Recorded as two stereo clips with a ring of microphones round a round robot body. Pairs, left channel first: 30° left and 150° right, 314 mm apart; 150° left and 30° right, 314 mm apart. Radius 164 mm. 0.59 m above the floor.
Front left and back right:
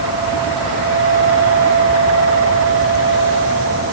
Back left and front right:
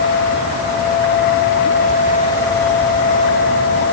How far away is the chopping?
No chopping in this recording.